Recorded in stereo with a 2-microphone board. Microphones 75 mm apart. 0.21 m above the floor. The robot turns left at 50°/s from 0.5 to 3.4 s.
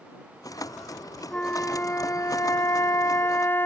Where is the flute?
160° left; by 3.7 s 55° left.